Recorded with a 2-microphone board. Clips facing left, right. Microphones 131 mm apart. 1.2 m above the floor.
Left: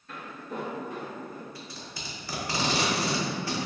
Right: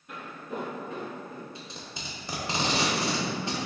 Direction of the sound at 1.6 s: 20° right (ahead or behind).